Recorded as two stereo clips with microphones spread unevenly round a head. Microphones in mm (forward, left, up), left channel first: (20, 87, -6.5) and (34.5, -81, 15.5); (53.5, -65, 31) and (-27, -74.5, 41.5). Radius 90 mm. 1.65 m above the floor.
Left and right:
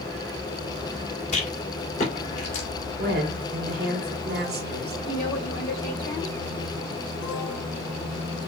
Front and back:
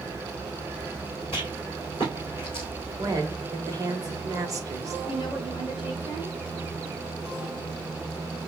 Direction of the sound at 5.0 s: 60° left.